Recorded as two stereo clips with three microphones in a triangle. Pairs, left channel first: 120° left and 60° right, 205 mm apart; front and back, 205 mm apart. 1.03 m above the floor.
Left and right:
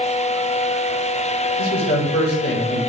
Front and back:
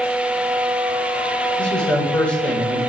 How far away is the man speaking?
About 3.5 m.